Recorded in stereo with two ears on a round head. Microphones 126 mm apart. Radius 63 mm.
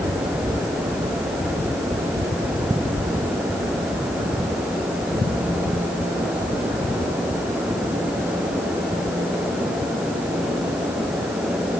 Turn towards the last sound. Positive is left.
No sound to turn to.